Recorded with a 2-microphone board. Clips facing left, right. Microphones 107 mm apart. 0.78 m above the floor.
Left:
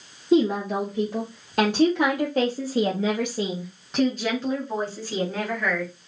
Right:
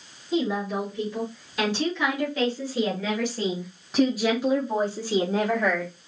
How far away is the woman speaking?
About 2.0 m.